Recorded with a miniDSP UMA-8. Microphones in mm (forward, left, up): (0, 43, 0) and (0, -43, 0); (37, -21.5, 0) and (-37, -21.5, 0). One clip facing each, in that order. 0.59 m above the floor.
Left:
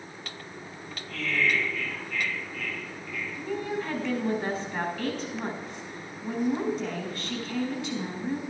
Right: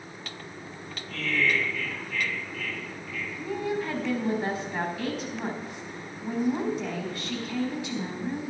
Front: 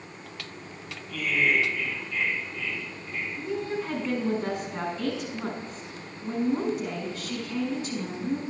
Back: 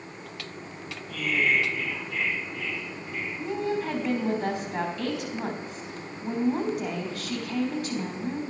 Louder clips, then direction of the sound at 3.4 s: Right 2 dB, back 3 dB; 160° right.